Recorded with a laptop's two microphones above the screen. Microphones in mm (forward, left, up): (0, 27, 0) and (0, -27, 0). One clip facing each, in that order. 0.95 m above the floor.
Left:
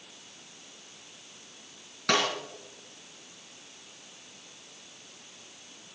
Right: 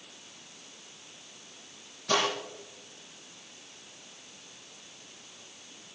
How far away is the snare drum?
About 4.5 m.